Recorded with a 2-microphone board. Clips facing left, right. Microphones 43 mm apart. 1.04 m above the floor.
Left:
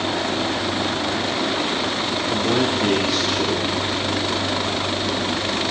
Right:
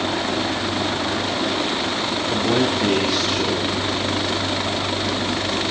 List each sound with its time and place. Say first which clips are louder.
2.3 s a man speaking: right 1 dB; 5° left (ahead or behind), 3.5 m